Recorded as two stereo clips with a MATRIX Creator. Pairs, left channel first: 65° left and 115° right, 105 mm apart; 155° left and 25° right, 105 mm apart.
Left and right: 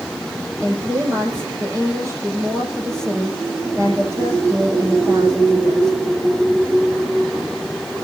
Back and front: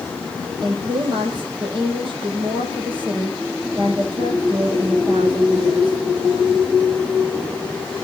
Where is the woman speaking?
55° right, 6.5 m.